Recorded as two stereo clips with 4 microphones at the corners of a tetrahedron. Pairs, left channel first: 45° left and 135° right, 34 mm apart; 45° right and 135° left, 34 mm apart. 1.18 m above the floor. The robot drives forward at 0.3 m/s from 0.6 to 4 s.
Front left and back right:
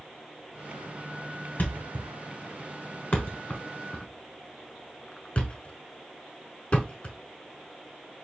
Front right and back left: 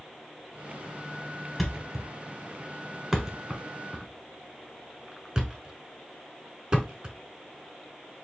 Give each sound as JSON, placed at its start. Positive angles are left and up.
{"t": 1.6, "sound": "a thud", "azimuth_deg": 40, "distance_m": 1.4}